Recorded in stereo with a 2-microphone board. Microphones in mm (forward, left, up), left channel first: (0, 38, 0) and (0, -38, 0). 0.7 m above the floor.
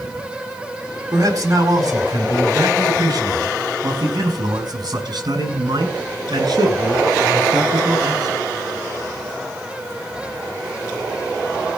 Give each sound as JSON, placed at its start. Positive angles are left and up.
{"t": 1.1, "sound": "a man speaking", "side_deg": -50, "distance_m": 3.5}